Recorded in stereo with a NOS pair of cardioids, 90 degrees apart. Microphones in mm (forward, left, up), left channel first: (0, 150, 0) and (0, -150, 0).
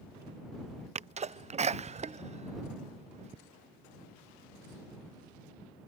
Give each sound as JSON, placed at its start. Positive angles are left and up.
{"t": 0.9, "sound": "a sneeze", "azimuth_deg": -25}